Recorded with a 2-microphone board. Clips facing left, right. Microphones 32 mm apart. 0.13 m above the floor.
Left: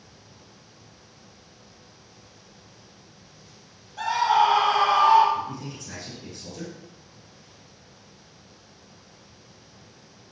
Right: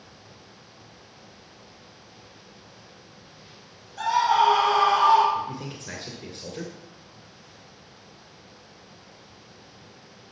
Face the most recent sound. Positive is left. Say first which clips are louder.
# right 1 dB
turn(degrees=-45)  # may be behind; listen again after turning